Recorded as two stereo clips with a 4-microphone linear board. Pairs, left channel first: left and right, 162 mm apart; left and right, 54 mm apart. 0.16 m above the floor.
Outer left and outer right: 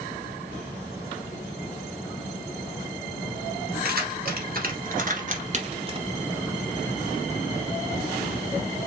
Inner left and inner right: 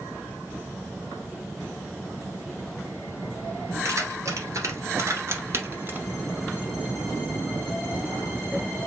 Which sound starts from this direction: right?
Keys jangling, at 3.9 s.